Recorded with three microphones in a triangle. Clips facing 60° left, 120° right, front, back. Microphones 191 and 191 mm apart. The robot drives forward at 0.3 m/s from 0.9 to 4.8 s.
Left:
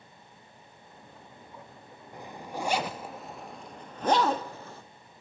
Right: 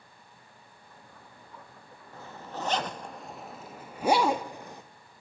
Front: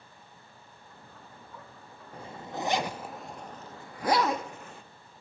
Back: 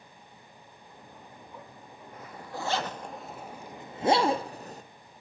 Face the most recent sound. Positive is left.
turn(degrees=175)